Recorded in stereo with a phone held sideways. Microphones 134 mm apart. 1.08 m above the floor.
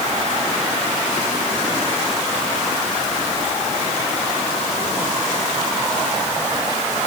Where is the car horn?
No car horn in this recording.